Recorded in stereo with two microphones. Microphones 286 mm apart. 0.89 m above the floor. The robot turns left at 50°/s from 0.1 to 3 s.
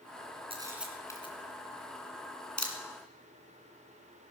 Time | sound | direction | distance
0.5 | a camera shutter | 20° right (ahead or behind) | 2.5 m